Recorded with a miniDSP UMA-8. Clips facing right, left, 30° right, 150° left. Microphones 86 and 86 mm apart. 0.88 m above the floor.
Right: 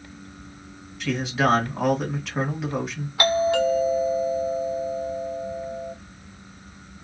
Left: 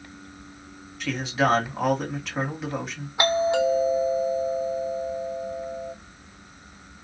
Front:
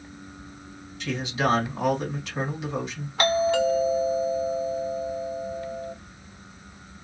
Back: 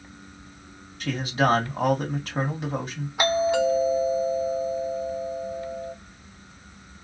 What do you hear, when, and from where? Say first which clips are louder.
1.0 s a man speaking: right 1 dB, back 3 dB; straight behind, 1.5 m
3.2 s a doorbell: right 1 dB, even; 90° left, 0.9 m